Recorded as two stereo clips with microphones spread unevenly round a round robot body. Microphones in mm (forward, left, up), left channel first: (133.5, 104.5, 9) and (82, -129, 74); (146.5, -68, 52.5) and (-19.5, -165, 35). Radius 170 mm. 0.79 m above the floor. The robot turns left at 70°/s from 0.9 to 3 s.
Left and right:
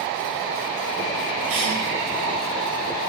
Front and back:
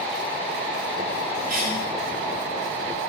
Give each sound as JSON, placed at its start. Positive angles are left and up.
{"t": 1.5, "sound": "a cough", "azimuth_deg": -140, "distance_m": 1.6}